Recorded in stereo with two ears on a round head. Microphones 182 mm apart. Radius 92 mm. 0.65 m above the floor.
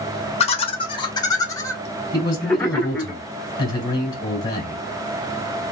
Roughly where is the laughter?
Left.